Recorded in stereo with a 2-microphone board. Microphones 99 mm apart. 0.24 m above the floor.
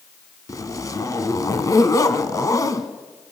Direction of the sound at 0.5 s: 35° left (ahead or behind).